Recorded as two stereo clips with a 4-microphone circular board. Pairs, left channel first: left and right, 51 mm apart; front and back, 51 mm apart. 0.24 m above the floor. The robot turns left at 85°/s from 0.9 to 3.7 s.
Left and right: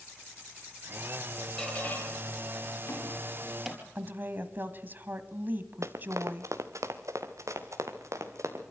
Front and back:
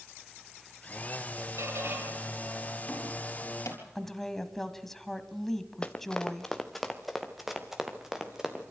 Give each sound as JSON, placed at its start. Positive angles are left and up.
{"t": 1.6, "sound": "a squeak", "azimuth_deg": 170, "distance_m": 4.5}
{"t": 4.0, "sound": "a woman speaking", "azimuth_deg": -80, "distance_m": 1.5}
{"t": 5.8, "sound": "running footsteps", "azimuth_deg": -70, "distance_m": 1.5}